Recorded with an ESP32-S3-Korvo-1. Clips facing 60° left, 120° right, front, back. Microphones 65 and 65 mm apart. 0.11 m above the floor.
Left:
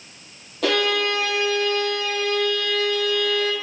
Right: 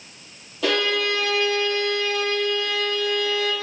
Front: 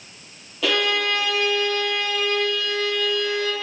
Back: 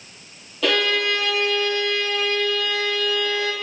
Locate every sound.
0.6 s a violin: 85° left, 3 m